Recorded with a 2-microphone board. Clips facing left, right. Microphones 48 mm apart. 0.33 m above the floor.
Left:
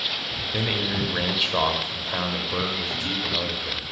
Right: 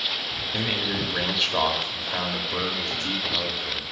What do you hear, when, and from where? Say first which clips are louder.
0.5 s a man speaking: left 1 dB; 5° left (ahead or behind), 1.1 m